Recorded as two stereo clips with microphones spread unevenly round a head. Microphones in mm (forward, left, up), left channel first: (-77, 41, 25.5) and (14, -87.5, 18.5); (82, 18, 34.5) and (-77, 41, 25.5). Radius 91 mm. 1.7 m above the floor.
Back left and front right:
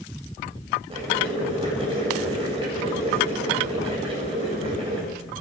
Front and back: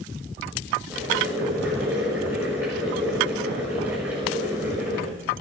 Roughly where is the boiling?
Right.